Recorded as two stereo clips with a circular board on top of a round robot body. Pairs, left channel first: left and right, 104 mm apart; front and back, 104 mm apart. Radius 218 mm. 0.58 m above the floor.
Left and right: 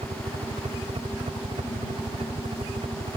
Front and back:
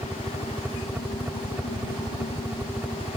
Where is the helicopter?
110° right.